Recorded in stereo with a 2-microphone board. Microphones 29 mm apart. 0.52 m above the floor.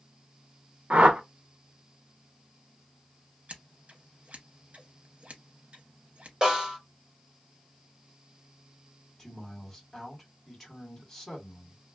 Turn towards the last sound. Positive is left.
turn(degrees=15)  # may be behind; listen again after turning